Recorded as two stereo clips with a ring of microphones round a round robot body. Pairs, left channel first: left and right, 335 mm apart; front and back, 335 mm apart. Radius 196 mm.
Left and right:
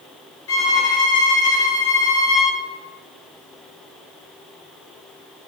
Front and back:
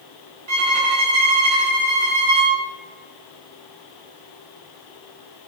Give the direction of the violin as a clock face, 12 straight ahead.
7 o'clock.